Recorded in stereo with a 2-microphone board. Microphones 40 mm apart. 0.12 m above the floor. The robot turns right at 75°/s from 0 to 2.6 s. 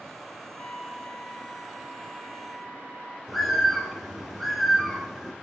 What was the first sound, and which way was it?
A trumpet, 105° left.